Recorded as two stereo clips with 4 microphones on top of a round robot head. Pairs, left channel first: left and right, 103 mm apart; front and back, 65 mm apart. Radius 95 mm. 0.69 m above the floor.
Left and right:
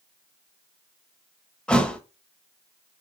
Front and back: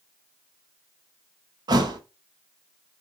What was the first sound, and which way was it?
A thud, 170° left.